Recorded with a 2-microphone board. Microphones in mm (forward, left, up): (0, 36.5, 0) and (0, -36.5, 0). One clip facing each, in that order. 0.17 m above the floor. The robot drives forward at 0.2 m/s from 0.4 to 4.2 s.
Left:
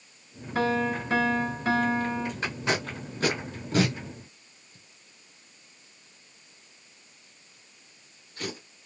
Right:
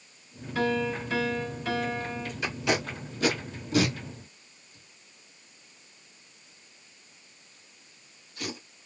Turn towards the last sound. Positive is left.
turn(degrees=35)  # may be behind; listen again after turning